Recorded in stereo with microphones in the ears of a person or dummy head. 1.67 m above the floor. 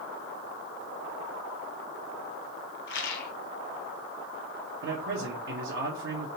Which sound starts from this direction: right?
A man speaking, at 4.8 s.